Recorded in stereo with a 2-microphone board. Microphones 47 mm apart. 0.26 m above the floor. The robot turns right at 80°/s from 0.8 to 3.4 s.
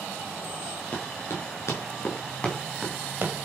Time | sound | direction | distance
0.9 | running footsteps | 40° left (ahead or behind) | 6 m